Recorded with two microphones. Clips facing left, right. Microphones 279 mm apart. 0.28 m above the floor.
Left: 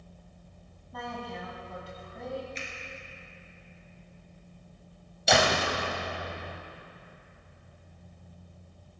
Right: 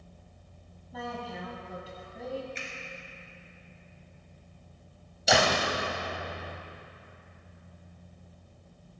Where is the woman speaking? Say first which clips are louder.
Right 1 dB; 5° right (ahead or behind), 2.0 m.